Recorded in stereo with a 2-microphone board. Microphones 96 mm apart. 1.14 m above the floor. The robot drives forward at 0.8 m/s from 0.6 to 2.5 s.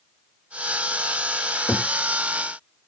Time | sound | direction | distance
1.7 | a cupboard door | 30° left (ahead or behind) | 1.7 m